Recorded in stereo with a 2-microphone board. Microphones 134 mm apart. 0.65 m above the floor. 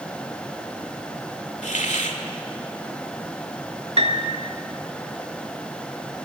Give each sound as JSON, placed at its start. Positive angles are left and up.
{"t": 1.6, "sound": "a hiss", "side_deg": 65, "distance_m": 2.0}
{"t": 4.0, "sound": "a piano", "side_deg": -50, "distance_m": 1.7}